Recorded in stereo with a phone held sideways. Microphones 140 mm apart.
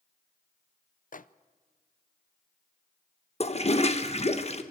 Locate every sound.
1.1 s a microwave: 65° left (ahead or behind), 0.5 m
3.4 s a toilet flushing: 45° left (ahead or behind), 1.1 m